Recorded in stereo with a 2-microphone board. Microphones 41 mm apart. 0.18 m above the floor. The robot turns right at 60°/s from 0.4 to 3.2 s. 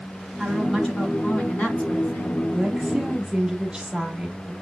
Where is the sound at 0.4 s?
Straight ahead, 1.7 m; by 2.4 s 120° left, 1.7 m.